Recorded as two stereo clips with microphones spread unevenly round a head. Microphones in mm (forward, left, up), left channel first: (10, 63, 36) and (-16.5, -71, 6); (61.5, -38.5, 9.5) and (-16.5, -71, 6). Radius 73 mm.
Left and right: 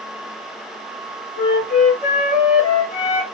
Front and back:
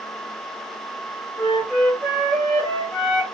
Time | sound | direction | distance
1.4 | a flute | 110° left | 0.7 m